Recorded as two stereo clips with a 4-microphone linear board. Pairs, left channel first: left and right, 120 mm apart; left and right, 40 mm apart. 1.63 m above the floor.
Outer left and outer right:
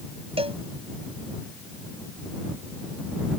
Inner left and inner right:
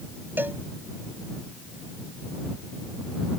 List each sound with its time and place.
0.4 s a cowbell: 55° right (ahead or behind)